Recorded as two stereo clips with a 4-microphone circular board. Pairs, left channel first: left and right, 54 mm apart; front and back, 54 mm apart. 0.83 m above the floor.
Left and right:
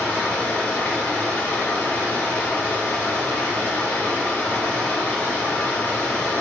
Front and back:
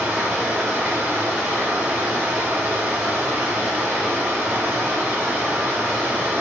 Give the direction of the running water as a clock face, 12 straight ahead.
7 o'clock.